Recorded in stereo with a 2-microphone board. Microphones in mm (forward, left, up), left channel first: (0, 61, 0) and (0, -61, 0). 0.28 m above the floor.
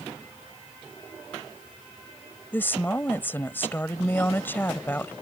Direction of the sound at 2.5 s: 20° left (ahead or behind).